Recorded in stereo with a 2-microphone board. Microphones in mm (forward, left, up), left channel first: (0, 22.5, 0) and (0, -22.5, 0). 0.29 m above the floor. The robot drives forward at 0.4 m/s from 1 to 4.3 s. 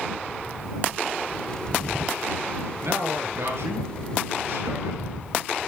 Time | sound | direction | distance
2.8 | a man speaking | 65° right (ahead or behind) | 4 m